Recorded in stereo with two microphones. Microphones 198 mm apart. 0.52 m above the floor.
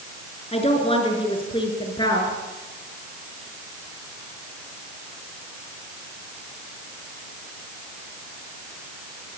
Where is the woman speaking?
30° left (ahead or behind), 6.5 m; by 2.3 s 20° left (ahead or behind), 7.5 m.